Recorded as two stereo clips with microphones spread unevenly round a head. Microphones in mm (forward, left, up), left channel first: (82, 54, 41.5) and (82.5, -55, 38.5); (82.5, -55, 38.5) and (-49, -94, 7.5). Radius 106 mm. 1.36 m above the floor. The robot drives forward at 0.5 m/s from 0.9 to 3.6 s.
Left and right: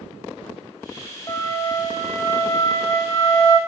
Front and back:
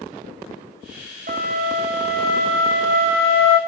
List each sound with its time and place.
1.3 s a flute: 160° left, 0.7 m; by 3.6 s 175° left, 1.7 m